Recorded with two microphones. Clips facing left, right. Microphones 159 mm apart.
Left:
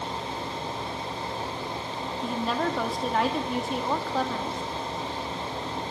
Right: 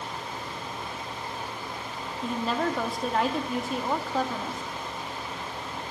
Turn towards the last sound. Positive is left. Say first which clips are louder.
# even
turn(degrees=0)  # may be behind; listen again after turning